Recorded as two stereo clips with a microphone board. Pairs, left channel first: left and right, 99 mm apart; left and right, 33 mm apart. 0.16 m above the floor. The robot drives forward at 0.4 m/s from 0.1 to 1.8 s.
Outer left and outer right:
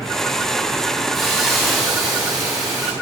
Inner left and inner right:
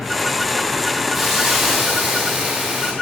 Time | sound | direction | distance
1.1 | a hiss | centre (ahead or behind) | 7.5 m